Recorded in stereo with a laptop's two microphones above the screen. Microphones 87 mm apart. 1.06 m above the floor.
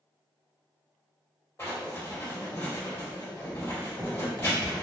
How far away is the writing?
About 1.5 m.